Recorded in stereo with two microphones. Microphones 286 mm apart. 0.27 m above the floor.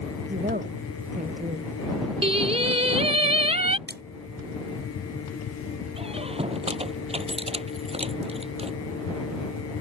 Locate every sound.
0.3 s a woman speaking: 30° right (ahead or behind); by 1.7 s 25° right (ahead or behind)
2.2 s singing: 20° right (ahead or behind)
3.9 s a splash: 35° right (ahead or behind)
6.0 s a squeak: 20° right (ahead or behind)